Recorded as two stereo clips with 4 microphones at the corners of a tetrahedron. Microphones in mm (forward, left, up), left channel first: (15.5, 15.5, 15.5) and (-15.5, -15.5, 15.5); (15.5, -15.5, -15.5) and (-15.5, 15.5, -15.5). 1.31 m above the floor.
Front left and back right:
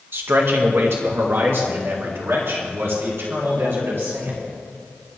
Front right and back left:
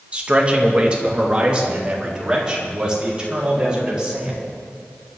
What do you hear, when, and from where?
0.1 s a man speaking: 165° right, 1.6 m; by 4.4 s 155° right, 5 m